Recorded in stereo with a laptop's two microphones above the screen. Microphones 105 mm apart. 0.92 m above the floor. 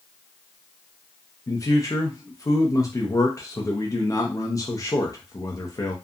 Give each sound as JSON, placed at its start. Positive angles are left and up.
{"t": 1.5, "sound": "a man speaking", "side_deg": 30, "distance_m": 0.5}